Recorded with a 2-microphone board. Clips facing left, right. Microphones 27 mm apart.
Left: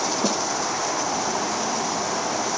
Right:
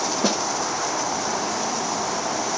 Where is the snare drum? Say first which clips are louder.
Right 3 dB; 35° right (ahead or behind), 0.5 m.